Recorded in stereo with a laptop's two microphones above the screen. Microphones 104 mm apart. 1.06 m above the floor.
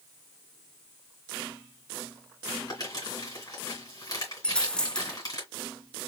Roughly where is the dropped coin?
Centre.